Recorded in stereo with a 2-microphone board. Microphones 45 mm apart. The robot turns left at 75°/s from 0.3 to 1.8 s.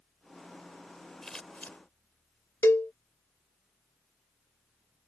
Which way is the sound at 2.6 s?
70° left (ahead or behind).